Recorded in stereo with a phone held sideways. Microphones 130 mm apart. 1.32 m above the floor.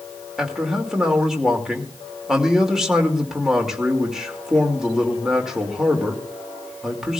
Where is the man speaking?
5° right (ahead or behind), 2 m.